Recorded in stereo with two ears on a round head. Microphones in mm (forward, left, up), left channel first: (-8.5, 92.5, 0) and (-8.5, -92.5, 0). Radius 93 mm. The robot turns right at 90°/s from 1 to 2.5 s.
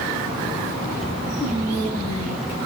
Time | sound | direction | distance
1.4 | whispering | straight ahead | 7.5 m